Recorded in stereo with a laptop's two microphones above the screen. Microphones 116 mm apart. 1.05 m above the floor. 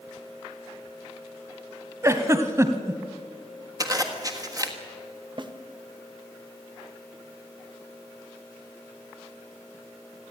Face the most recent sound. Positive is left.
turn(degrees=-40)  # may be behind; listen again after turning